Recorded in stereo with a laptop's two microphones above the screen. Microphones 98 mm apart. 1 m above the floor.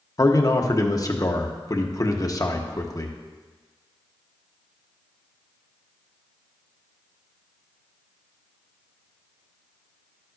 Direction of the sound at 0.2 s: 35° left (ahead or behind).